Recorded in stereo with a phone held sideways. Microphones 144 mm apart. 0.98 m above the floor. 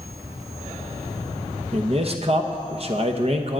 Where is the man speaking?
45° right (ahead or behind), 1.0 m.